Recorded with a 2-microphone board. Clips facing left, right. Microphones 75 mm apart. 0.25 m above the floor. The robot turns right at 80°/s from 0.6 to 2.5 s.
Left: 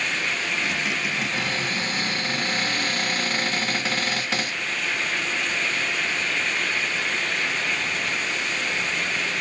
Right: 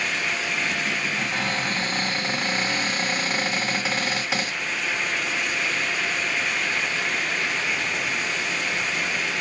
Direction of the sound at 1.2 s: 120° right.